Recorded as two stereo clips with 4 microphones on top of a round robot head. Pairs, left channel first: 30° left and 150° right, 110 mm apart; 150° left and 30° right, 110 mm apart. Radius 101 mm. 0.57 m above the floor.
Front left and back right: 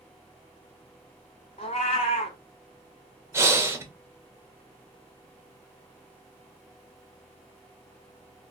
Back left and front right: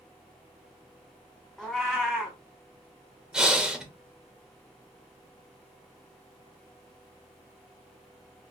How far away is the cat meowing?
About 0.5 m.